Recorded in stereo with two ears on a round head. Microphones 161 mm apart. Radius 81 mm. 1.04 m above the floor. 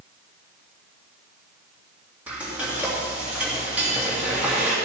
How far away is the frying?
About 2.5 m.